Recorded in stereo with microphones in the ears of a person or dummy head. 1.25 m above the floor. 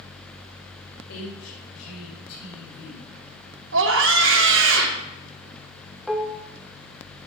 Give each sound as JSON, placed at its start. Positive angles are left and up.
{"t": 1.1, "sound": "a woman speaking", "side_deg": 85, "distance_m": 5.0}
{"t": 3.7, "sound": "a scream", "side_deg": -65, "distance_m": 1.8}
{"t": 6.1, "sound": "dishes clattering", "side_deg": -5, "distance_m": 0.8}